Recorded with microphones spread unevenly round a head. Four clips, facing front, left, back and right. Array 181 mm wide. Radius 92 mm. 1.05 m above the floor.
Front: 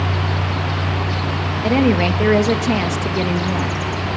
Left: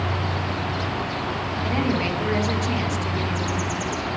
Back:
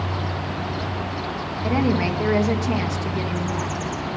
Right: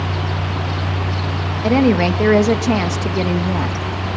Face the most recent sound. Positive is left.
turn(degrees=-65)